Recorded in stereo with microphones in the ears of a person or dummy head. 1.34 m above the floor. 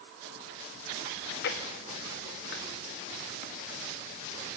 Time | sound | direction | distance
1.1 | chewing | 65° left (ahead or behind) | 2.5 m